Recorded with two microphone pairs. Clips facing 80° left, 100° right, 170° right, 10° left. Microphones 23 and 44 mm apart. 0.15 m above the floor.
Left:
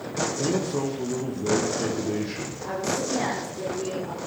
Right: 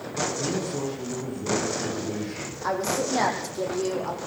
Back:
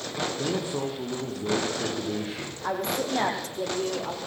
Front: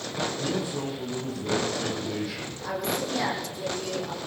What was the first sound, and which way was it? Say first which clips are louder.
A man speaking: left 3 dB, back 1 dB; 135° left.